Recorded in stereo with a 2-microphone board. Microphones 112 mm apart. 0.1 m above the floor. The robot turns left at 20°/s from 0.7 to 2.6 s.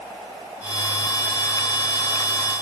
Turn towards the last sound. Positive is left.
No sound to turn to.